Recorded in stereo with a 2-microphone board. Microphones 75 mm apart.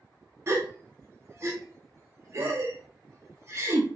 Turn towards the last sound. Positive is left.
turn(degrees=-35)  # may be behind; listen again after turning